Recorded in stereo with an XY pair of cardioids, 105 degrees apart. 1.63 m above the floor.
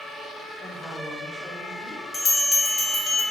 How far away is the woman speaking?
About 2.5 m.